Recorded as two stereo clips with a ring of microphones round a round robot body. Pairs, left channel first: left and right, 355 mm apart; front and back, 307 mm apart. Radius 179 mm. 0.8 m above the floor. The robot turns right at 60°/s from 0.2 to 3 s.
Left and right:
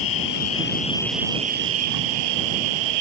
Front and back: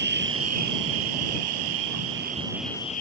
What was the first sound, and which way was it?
An insect, 125° left.